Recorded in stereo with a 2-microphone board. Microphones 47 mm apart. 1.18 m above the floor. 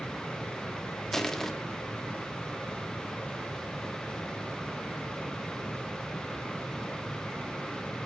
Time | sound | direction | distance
1.1 | crushing | 5° left (ahead or behind) | 0.7 m